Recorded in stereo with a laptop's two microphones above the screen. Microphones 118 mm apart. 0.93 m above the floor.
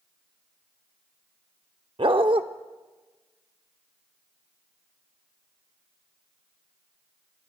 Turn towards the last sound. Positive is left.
turn(degrees=-50)  # may be behind; listen again after turning